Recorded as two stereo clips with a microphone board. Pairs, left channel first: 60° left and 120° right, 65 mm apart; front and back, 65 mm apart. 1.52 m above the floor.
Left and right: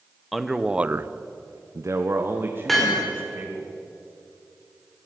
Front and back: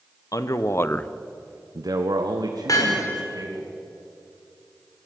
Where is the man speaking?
35° right, 1.4 m; by 3.7 s 175° left, 3.5 m.